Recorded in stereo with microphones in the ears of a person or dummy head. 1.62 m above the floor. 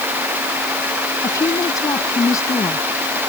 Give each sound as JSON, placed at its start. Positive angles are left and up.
{"t": 1.2, "sound": "a woman speaking", "side_deg": 20}